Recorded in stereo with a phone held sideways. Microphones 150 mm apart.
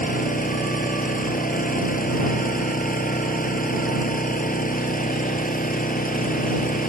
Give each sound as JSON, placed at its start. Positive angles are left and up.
{"t": 0.0, "sound": "an engine running", "side_deg": 65}